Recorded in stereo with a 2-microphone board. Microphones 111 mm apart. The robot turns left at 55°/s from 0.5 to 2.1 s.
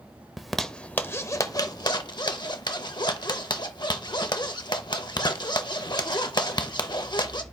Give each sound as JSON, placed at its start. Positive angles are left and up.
{"t": 0.4, "sound": "a zipper", "side_deg": 0, "distance_m": 0.6}